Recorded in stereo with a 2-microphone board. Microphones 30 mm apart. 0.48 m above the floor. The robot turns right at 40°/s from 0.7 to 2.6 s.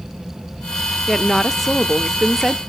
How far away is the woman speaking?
About 0.7 m.